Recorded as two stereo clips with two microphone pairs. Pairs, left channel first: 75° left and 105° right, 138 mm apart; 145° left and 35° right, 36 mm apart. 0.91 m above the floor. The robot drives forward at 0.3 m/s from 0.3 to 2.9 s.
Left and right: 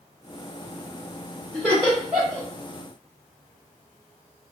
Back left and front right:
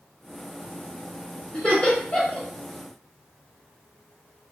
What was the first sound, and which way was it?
Laughter, 170° left.